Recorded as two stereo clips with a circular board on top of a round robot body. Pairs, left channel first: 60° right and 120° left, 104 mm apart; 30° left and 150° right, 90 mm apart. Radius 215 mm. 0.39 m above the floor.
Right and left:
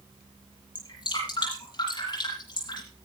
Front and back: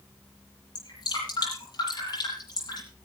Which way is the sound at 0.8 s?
15° right.